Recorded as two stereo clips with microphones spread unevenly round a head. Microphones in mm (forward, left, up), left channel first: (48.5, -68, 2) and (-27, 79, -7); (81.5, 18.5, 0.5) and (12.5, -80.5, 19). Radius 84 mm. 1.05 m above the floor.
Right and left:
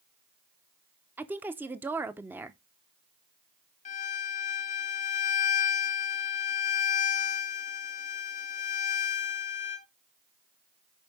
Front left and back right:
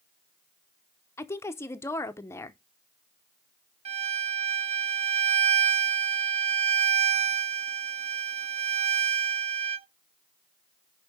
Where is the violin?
105° right, 0.9 m.